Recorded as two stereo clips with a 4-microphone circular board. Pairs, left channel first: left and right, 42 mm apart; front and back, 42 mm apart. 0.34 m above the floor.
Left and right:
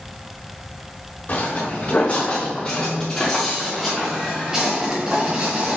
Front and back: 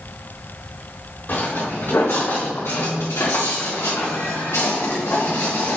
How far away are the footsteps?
About 3 m.